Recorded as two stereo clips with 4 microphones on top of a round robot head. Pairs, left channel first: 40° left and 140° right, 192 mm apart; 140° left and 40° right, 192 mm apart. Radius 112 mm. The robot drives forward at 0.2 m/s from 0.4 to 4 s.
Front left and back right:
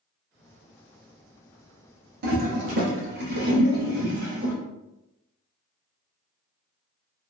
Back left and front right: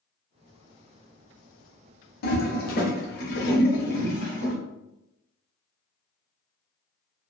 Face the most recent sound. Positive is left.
turn(degrees=180)